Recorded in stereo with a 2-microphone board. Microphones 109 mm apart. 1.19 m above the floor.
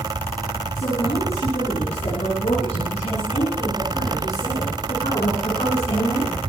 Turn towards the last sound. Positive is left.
turn(degrees=75)  # may be behind; listen again after turning